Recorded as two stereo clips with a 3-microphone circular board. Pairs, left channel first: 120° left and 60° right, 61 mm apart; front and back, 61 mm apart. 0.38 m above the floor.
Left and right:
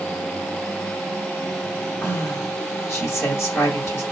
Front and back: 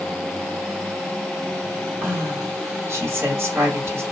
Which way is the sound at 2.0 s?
145° left.